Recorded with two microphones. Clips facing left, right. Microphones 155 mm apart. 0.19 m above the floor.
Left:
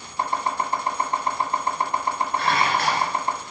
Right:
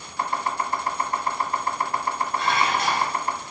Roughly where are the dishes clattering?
Left.